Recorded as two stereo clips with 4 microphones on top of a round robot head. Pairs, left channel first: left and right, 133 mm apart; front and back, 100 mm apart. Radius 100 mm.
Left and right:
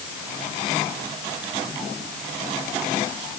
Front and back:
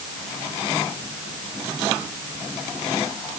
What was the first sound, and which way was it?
Only background noise.